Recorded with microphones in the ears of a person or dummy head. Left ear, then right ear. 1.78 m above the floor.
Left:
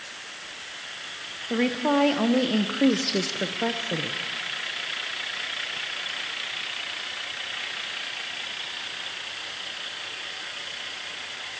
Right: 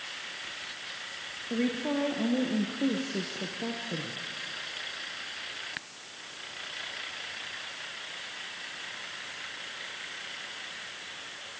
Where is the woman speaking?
45° left (ahead or behind), 1.7 m; by 4.2 s 30° left (ahead or behind), 1.0 m.